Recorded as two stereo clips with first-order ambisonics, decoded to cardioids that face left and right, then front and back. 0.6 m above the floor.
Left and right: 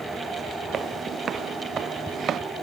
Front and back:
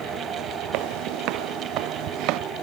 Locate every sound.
0.7 s footsteps: 155° right; by 2.4 s 150° right